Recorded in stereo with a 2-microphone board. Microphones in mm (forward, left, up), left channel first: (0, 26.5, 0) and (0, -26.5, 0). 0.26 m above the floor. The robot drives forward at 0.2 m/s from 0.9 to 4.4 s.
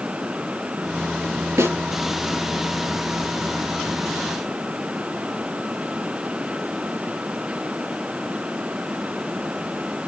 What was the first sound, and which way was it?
A snare drum, 75° right (ahead or behind).